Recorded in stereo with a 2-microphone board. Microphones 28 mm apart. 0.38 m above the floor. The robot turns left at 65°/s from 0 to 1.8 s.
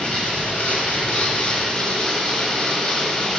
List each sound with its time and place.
0.0 s running water: 140° left, 1.3 m; by 3.4 s 25° left, 1.3 m